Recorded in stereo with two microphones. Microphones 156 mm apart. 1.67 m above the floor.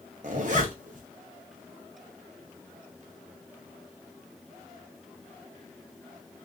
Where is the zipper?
55° right (ahead or behind), 0.8 m.